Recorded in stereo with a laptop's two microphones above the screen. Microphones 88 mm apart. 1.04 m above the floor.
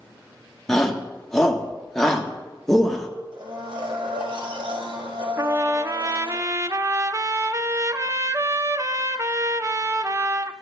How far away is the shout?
About 1.2 m.